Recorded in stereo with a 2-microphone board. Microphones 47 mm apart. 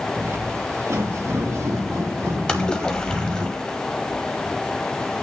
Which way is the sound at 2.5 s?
15° left (ahead or behind).